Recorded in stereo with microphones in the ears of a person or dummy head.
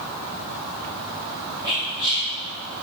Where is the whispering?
20° left (ahead or behind), 1.8 m.